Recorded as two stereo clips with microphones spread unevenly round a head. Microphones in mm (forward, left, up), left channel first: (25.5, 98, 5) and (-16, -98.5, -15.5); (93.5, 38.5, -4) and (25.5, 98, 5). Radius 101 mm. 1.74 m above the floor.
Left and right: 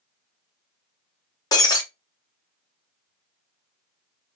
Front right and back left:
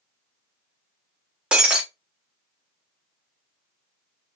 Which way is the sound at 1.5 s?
90° left.